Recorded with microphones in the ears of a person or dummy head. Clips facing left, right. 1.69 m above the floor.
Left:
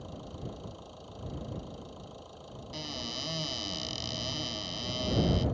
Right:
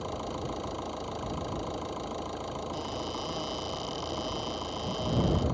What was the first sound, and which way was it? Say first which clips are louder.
An engine running: right 8 dB; 85° right.